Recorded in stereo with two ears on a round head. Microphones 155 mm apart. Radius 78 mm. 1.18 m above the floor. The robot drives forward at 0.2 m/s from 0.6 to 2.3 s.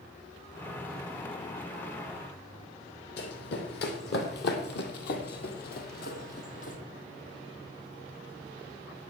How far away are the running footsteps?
About 3 m.